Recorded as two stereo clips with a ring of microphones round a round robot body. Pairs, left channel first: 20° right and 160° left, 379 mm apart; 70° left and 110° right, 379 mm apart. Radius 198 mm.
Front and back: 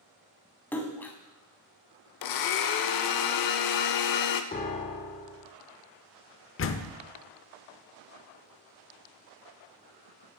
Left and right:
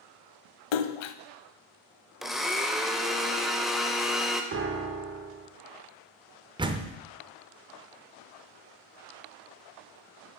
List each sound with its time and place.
0.7 s a splash: 65° left, 0.6 m
2.2 s a blender: 25° right, 0.6 m
4.5 s a piano: 80° right, 0.8 m
6.6 s a door slam: 45° right, 0.6 m